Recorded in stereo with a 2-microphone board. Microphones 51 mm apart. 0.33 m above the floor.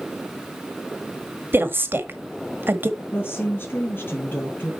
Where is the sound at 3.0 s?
45° left (ahead or behind), 4.5 m.